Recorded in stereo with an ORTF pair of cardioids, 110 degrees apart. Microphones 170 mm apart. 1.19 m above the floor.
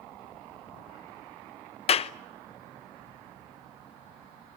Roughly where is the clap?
Ahead left.